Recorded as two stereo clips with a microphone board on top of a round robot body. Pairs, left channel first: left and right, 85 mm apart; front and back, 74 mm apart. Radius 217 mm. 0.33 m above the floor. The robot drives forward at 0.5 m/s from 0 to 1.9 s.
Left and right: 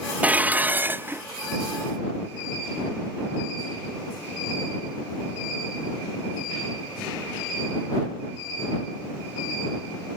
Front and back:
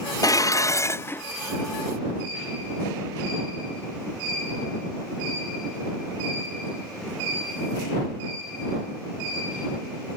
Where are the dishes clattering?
20° right; by 1.2 s 45° right.